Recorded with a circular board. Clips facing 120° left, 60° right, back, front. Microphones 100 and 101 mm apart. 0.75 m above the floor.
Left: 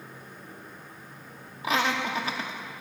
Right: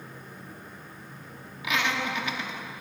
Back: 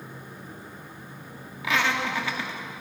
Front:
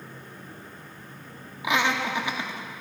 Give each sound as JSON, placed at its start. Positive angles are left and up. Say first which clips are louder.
{"t": 1.6, "sound": "laughter", "louder": "left 2 dB, front 1 dB", "azimuth_deg": 70, "distance_m": 1.0}